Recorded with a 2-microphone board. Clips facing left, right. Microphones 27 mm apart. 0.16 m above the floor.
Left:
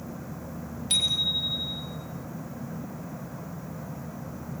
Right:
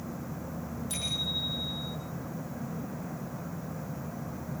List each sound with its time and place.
0.9 s a bicycle bell: 55° left (ahead or behind), 4.5 m